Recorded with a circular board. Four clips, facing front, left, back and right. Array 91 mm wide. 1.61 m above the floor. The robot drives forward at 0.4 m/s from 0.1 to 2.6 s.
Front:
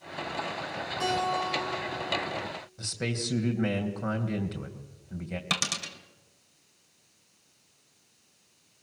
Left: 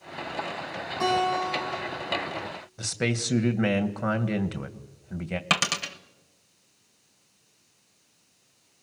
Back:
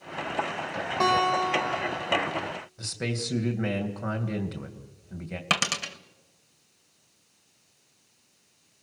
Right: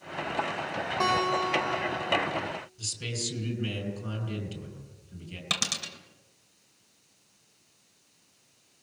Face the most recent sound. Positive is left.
turn(degrees=130)